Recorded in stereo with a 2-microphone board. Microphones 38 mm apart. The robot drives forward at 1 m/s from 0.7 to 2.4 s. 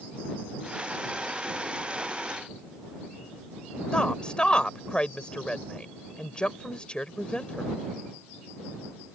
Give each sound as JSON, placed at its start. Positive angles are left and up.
{"t": 3.9, "sound": "a woman speaking", "side_deg": 25}